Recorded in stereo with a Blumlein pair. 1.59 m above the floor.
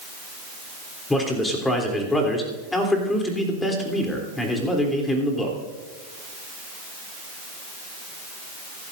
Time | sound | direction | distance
1.1 | a man speaking | 10° left | 3.5 m